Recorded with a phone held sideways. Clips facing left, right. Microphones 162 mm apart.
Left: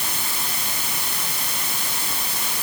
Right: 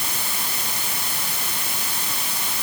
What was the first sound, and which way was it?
Only background noise.